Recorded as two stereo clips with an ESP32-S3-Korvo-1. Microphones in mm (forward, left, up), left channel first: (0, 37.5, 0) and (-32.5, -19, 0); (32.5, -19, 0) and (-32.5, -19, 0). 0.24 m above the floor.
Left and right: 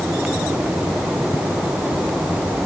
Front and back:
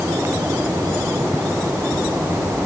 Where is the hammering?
No hammering in this recording.